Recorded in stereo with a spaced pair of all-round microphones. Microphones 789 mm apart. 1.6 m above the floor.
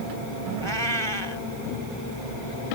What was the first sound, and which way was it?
A cat meowing, 35° right (ahead or behind).